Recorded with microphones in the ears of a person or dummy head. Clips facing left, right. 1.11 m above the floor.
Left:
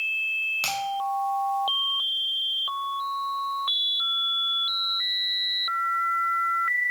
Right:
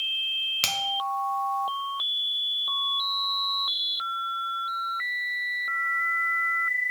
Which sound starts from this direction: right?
A finger snap, at 0.6 s.